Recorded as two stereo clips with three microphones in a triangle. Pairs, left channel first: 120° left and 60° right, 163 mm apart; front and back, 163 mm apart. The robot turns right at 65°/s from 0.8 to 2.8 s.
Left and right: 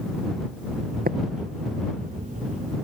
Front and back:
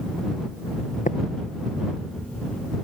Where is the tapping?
40° right; by 1.2 s 30° right.